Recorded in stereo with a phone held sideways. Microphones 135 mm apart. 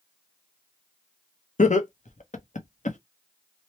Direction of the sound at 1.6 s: 60° left (ahead or behind).